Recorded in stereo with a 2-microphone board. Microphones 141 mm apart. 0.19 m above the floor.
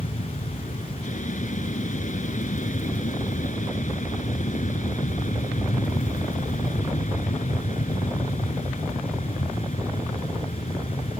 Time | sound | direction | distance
0.0 | an aircraft | 60° left (ahead or behind) | ?